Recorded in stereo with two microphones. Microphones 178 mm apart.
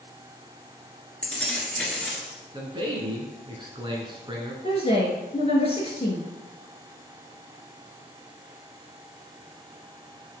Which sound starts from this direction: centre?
Keys jangling, at 1.2 s.